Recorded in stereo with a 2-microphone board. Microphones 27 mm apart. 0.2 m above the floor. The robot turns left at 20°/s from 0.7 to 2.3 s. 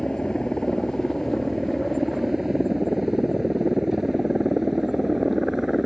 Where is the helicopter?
30° left (ahead or behind); by 5.9 s 10° right (ahead or behind).